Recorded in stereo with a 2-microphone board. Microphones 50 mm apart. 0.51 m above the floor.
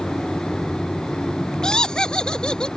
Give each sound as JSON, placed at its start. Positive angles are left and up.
{"t": 1.6, "sound": "laughter", "side_deg": 15}